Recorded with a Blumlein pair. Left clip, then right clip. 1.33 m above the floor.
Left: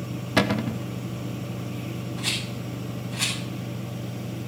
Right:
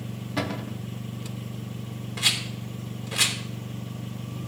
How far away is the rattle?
About 4 m.